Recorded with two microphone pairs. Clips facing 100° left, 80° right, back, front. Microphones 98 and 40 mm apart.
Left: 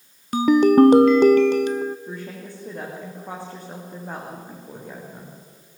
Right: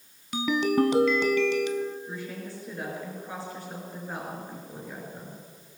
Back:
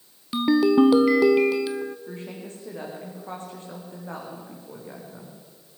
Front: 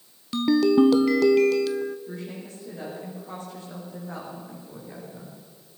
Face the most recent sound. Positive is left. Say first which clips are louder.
# left 2 dB, even
turn(degrees=130)